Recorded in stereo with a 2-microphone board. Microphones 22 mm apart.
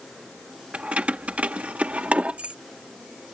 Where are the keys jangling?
55° right (ahead or behind); by 2.5 s 70° right (ahead or behind).